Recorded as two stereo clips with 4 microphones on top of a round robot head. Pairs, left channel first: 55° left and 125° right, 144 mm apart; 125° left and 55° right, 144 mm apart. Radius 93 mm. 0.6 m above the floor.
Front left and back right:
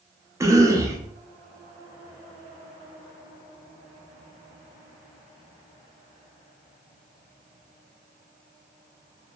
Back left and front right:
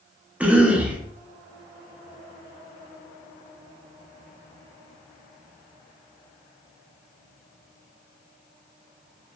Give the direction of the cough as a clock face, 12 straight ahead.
4 o'clock.